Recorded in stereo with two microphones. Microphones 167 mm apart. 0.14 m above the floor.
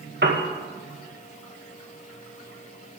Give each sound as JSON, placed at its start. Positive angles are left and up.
{"t": 0.2, "sound": "a piano", "side_deg": -80, "distance_m": 2.5}